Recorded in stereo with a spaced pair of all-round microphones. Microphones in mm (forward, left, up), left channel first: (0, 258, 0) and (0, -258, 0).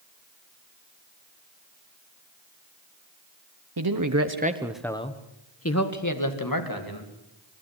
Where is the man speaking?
50° right (ahead or behind), 1.2 m; by 7.1 s 45° left (ahead or behind), 3 m.